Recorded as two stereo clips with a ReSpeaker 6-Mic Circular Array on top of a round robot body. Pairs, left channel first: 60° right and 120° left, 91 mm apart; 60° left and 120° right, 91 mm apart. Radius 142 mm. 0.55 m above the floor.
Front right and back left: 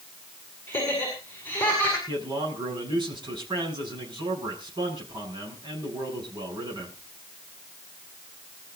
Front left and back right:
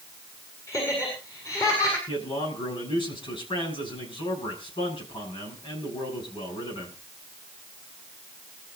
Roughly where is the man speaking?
Left.